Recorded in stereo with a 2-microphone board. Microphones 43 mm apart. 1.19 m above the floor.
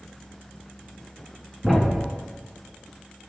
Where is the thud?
5° left (ahead or behind), 1.5 m.